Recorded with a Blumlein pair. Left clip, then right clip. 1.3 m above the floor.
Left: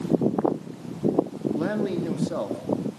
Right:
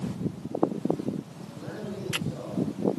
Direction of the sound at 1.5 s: 55° left.